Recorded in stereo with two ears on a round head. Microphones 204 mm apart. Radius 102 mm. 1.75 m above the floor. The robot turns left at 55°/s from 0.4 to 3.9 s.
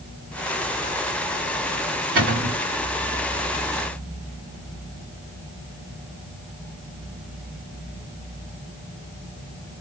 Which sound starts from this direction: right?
A cupboard door, at 2.1 s.